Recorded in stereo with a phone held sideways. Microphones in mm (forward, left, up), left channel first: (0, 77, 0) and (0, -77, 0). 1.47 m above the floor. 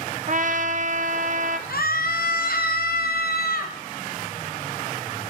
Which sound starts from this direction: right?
A trumpet, at 0.3 s.